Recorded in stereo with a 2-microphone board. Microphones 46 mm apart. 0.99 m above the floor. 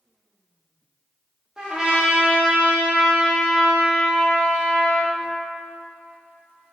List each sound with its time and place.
1.6 s a trumpet: 20° right (ahead or behind), 0.8 m